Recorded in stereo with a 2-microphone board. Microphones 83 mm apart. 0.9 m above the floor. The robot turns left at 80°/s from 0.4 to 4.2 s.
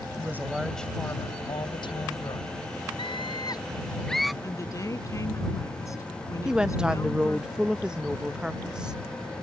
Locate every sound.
0.2 s a woman speaking: 155° right; by 2.5 s 35° left
3.0 s a scream: 95° left; by 4.3 s straight ahead
4.4 s a woman speaking: 40° left (ahead or behind)
6.5 s a woman speaking: 10° right (ahead or behind)